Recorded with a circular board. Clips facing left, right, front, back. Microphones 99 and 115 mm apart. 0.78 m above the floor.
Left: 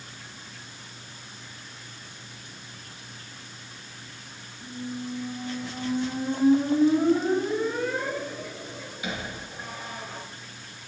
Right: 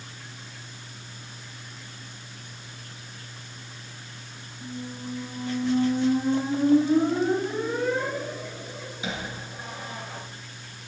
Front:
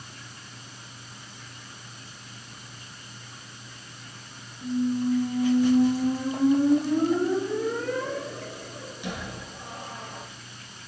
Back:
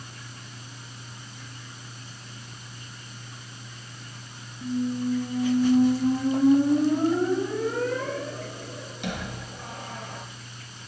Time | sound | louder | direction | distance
4.6 | a squeak | left 1 dB, front 2 dB | 155° right | 2.5 m